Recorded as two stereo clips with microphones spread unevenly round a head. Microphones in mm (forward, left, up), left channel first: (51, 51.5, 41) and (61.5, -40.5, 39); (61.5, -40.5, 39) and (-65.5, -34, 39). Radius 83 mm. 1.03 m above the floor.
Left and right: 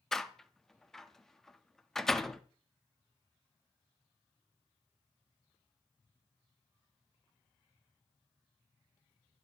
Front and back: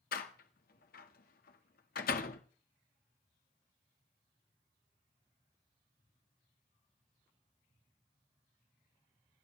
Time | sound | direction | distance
0.1 | a door slam | 10° left | 1.5 m